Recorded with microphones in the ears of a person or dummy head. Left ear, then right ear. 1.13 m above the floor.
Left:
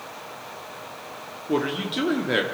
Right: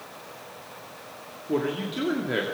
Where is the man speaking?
20° left (ahead or behind), 2 m.